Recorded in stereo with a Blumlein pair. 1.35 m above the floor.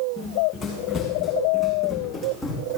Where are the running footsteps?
30° left, 5.5 m; by 2.8 s 5° left, 3.5 m.